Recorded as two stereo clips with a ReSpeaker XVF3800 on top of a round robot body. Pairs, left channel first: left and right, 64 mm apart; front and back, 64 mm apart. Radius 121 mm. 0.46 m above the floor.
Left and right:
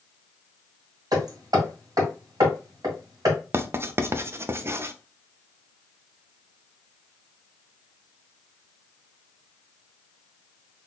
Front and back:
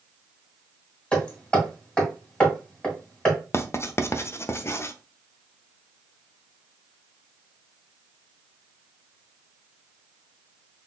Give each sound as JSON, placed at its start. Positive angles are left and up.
{"t": 1.1, "sound": "hammering", "azimuth_deg": -75, "distance_m": 2.5}
{"t": 3.5, "sound": "writing", "azimuth_deg": -45, "distance_m": 0.6}